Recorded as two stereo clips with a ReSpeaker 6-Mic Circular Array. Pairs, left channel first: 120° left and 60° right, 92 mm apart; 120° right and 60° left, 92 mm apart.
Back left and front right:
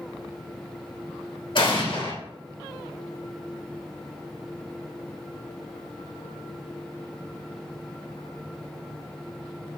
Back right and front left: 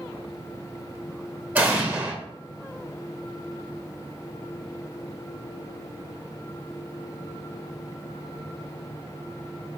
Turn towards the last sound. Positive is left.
turn(degrees=135)